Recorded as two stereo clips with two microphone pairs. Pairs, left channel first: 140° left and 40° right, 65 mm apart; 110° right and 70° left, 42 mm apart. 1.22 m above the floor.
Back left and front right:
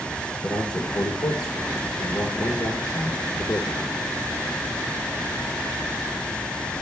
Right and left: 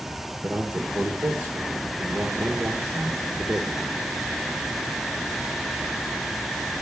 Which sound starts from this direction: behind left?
A man speaking, at 0.4 s.